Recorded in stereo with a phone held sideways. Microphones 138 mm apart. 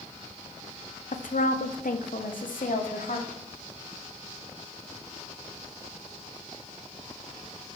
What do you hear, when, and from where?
1.1 s a woman speaking: 70° left (ahead or behind), 0.9 m; by 3.3 s 75° left (ahead or behind), 1.8 m